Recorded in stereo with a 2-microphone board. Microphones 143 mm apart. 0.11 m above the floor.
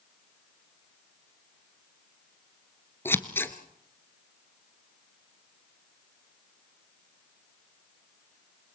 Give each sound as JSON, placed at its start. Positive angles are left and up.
{"t": 3.0, "sound": "scissors", "side_deg": 15, "distance_m": 1.3}